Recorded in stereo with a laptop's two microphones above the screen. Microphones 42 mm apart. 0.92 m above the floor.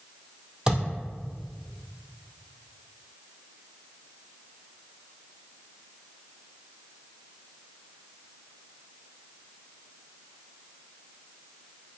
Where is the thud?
20° right (ahead or behind), 1.7 m.